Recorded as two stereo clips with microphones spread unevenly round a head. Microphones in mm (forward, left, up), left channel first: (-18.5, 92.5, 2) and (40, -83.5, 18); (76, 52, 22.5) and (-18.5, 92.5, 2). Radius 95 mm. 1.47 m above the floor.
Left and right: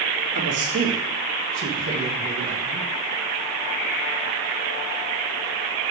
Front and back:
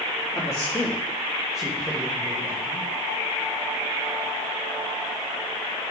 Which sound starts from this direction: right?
A man speaking, at 0.3 s.